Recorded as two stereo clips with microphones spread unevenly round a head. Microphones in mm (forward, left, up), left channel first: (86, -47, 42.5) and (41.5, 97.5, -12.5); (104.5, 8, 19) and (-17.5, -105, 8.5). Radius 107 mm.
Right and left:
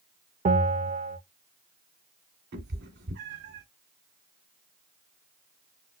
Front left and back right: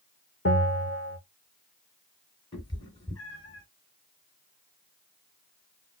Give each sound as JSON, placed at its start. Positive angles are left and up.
{"t": 0.5, "sound": "a bell", "azimuth_deg": 80, "distance_m": 2.0}
{"t": 2.5, "sound": "a cat meowing", "azimuth_deg": 105, "distance_m": 1.9}